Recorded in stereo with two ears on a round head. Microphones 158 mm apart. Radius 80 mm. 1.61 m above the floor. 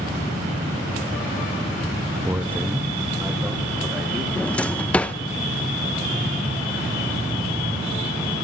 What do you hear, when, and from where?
2.2 s a man speaking: 10° right (ahead or behind), 0.6 m
4.4 s a drawer: 10° left (ahead or behind), 0.7 m